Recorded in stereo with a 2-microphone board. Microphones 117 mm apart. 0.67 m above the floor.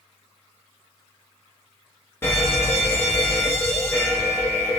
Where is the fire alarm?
20° left (ahead or behind), 1.4 m.